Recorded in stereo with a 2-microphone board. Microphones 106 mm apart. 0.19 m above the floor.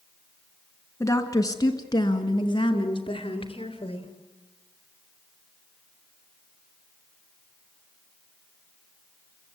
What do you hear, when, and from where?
1.0 s a woman speaking: 30° left (ahead or behind), 1.8 m; by 4.1 s 55° left (ahead or behind), 3 m